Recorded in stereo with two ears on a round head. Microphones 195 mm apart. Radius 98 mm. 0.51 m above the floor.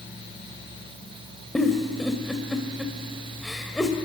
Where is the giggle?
Centre (ahead or behind), 1.8 m.